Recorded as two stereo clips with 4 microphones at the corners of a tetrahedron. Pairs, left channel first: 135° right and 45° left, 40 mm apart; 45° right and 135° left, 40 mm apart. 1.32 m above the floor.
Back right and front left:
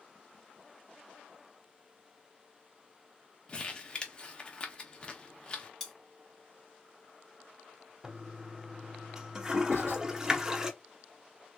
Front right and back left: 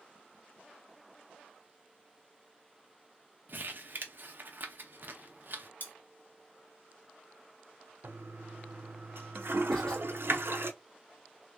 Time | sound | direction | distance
3.5 | crumpling | 160° left | 0.7 m
5.8 | cutlery clinking | 55° right | 0.7 m
8.0 | a toilet flushing | 120° left | 0.5 m
9.7 | writing | 120° right | 1.9 m